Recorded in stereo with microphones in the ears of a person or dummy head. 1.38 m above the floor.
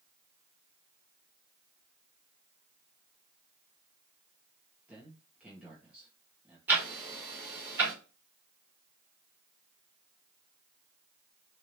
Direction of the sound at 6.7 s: 10° right (ahead or behind).